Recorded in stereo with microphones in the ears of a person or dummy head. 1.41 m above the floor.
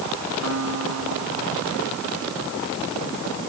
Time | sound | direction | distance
0.4 | a piano | 90° right | ?